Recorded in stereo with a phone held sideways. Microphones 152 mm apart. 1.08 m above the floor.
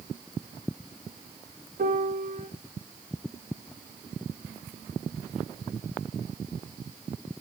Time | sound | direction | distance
1.8 | a piano | 70° right (ahead or behind) | 1.7 m